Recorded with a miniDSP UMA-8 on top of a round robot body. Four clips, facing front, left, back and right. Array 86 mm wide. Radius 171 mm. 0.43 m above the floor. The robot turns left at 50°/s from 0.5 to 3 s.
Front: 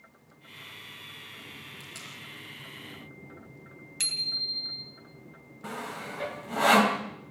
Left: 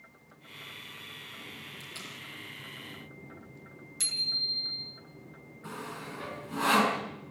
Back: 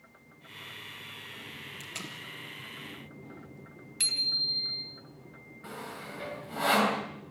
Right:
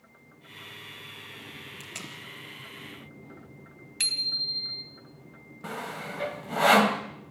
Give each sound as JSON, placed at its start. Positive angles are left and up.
{"t": 1.8, "sound": "tape being pulled", "azimuth_deg": -115, "distance_m": 4.0}
{"t": 4.0, "sound": "a bicycle bell", "azimuth_deg": -80, "distance_m": 3.5}
{"t": 5.6, "sound": "sawing", "azimuth_deg": -65, "distance_m": 3.5}